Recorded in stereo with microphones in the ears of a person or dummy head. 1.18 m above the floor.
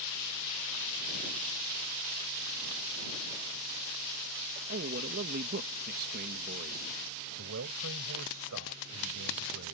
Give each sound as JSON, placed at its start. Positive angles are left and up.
{"t": 4.7, "sound": "a man speaking", "side_deg": -55}
{"t": 7.4, "sound": "a man speaking", "side_deg": -90}